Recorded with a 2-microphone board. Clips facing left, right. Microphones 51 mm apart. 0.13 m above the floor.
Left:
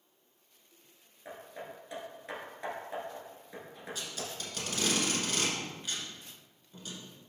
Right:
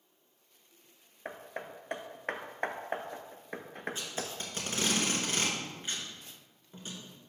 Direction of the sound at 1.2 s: 60° right (ahead or behind).